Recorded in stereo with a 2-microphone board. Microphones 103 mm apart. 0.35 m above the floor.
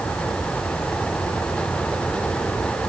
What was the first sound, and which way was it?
Only background noise.